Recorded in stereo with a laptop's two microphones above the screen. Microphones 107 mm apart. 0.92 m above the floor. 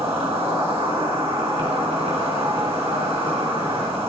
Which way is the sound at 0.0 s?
80° right.